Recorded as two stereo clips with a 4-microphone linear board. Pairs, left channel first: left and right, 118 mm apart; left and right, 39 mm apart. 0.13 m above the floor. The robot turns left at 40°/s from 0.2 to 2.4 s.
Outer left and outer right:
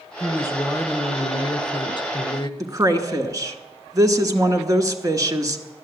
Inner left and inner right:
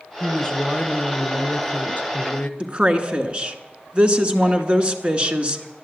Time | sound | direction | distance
0.2 | a woman speaking | 155° left | 1.4 m
2.6 | a woman speaking | 30° right (ahead or behind) | 1.2 m